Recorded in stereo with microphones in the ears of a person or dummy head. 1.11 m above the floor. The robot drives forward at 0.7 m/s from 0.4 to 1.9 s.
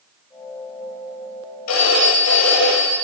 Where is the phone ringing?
90° left, 4.5 m.